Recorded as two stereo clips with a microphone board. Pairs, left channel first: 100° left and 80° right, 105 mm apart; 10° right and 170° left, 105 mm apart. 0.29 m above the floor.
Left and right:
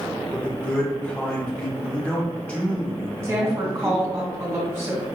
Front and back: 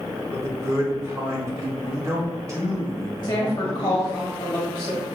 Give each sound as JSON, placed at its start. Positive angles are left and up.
{"t": 0.3, "sound": "a man speaking", "azimuth_deg": 160, "distance_m": 1.1}
{"t": 3.2, "sound": "a woman speaking", "azimuth_deg": -35, "distance_m": 1.8}